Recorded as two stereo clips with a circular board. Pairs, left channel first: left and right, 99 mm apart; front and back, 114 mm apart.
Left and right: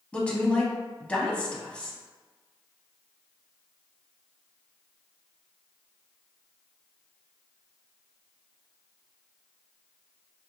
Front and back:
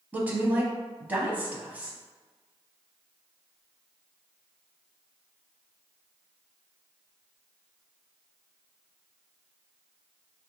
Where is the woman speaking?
140° left, 1.0 m.